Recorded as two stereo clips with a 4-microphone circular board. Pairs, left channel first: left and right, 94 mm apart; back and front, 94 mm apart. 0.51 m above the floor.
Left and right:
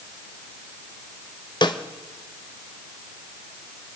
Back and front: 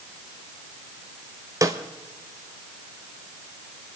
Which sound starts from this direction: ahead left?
A snare drum, at 1.6 s.